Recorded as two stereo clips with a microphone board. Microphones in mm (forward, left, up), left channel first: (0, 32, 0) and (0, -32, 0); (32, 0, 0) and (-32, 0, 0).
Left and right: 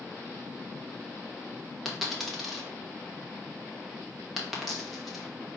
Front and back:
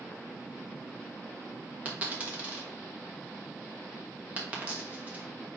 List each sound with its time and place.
1.9 s a dropped coin: 175° left, 1.0 m